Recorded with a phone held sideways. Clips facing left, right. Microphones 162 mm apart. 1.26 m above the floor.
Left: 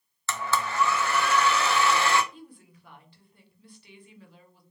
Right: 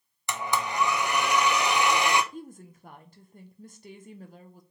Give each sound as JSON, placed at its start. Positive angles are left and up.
{"t": 0.3, "sound": "a blender", "side_deg": -15, "distance_m": 0.5}
{"t": 2.3, "sound": "a woman speaking", "side_deg": -45, "distance_m": 0.7}